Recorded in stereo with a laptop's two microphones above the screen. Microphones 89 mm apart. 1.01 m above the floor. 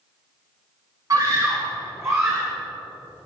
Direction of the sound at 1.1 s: 40° right (ahead or behind).